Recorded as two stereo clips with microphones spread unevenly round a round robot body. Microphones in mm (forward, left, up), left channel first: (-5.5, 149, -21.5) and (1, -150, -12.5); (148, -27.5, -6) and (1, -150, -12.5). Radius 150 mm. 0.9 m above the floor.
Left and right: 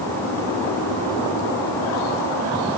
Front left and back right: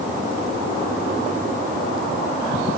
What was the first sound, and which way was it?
Only background noise.